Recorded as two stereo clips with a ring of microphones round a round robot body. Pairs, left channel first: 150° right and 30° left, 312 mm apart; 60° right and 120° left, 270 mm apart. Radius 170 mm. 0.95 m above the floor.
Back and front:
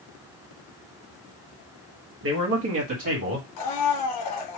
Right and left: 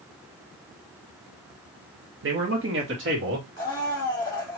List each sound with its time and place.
2.2 s a man speaking: 80° left, 1.2 m; by 3.5 s 75° left, 1.9 m
3.6 s a blender: 135° right, 1.7 m